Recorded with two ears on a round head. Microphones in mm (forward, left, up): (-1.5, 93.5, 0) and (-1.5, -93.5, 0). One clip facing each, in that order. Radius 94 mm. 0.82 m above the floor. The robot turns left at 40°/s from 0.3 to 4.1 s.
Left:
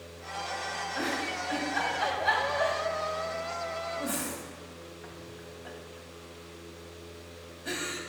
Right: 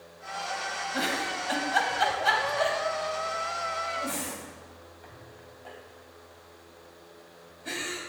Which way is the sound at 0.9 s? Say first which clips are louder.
Right 1 dB; 65° right (ahead or behind).